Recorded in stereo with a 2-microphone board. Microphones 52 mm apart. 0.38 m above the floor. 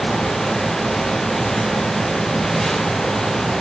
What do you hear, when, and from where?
Only background noise.